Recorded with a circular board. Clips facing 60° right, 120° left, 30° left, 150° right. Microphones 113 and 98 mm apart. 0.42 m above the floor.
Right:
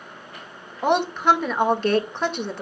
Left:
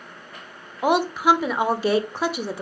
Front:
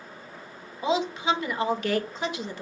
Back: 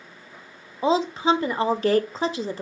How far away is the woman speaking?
About 0.9 m.